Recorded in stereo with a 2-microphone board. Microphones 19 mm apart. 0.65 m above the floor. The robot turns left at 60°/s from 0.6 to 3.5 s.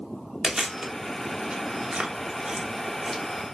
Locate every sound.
0.4 s chewing: 25° right (ahead or behind), 0.6 m; by 3.2 s 5° left (ahead or behind), 0.6 m